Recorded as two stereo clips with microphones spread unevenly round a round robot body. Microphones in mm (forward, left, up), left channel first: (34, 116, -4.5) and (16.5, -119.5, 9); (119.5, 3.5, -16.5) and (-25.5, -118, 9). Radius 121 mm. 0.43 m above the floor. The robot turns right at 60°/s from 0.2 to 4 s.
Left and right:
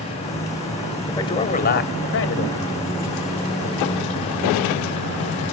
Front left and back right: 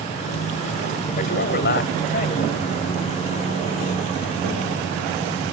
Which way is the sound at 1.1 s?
10° left.